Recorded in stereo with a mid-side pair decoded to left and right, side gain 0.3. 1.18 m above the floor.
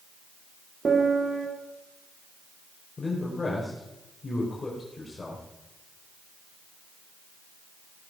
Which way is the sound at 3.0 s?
40° left.